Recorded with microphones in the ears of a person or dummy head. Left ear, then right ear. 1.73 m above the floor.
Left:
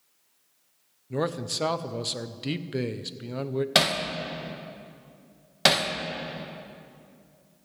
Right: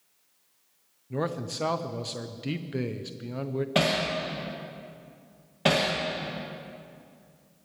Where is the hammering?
65° left (ahead or behind), 1.5 m.